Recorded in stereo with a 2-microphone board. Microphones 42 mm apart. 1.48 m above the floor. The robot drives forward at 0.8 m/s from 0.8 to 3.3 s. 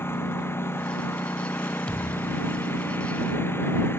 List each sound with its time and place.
0.0 s a lawn mower: 70° left (ahead or behind); by 4.0 s 65° left (ahead or behind)
1.9 s a thud: 30° left (ahead or behind); by 2.6 s 35° left (ahead or behind)